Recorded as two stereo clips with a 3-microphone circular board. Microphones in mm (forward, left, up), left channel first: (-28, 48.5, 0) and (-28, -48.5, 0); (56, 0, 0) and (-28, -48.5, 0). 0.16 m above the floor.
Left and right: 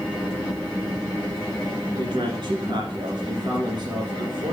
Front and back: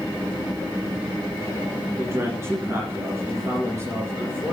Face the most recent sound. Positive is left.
turn(degrees=-95)